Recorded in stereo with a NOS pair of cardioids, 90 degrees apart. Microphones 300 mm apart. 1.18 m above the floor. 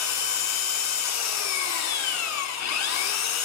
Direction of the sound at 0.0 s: 70° left.